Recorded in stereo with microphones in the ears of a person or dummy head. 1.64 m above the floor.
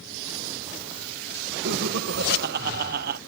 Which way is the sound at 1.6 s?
60° right (ahead or behind).